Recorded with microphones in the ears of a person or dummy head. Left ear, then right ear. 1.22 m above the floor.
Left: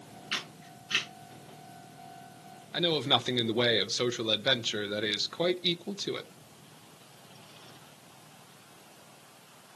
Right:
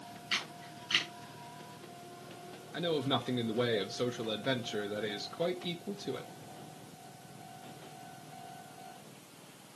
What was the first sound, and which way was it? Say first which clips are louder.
A camera shutter: even; 10° right (ahead or behind).